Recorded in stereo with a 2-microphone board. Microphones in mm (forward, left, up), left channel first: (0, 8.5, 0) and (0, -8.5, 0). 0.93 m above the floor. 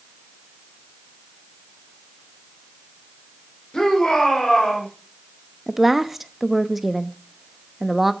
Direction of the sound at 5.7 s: 5° right (ahead or behind).